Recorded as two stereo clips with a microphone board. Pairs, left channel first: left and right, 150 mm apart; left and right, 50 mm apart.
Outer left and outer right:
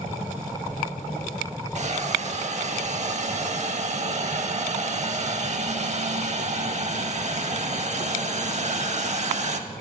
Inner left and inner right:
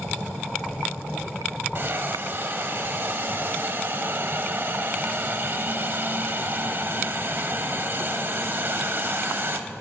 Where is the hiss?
50° right (ahead or behind), 0.5 m.